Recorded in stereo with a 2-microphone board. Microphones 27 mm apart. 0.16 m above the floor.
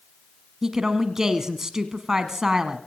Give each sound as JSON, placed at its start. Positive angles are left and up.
{"t": 0.6, "sound": "a woman speaking", "side_deg": -20, "distance_m": 1.2}